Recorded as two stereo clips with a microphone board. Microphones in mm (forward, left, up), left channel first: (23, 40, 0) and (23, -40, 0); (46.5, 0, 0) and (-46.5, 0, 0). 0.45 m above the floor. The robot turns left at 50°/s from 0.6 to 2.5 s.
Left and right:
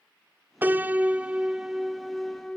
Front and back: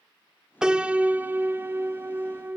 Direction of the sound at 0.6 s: 105° right.